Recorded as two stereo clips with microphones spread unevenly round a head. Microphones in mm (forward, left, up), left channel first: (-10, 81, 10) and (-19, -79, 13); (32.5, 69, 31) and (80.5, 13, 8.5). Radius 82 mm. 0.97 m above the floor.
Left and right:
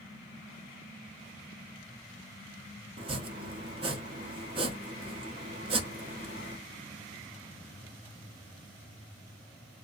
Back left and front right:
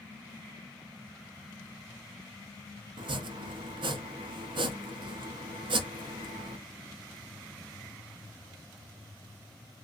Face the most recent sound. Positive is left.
turn(degrees=-35)